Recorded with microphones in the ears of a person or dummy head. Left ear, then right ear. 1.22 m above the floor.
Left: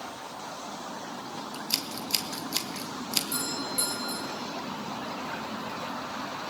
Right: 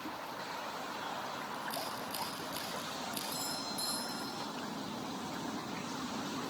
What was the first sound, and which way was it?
Scissors, 70° left (ahead or behind).